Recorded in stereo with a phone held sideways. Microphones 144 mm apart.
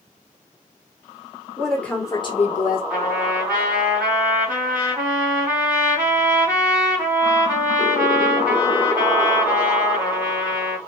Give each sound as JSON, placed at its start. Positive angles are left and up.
{"t": 1.6, "sound": "a woman speaking", "side_deg": 0, "distance_m": 1.2}
{"t": 2.9, "sound": "a trumpet", "side_deg": -15, "distance_m": 1.8}